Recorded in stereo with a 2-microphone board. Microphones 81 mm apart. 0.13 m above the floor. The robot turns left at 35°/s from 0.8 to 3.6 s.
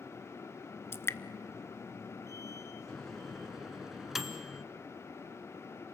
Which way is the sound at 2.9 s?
10° left (ahead or behind).